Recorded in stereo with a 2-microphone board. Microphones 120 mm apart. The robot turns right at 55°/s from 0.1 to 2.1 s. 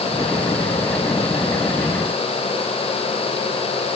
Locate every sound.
Only background noise.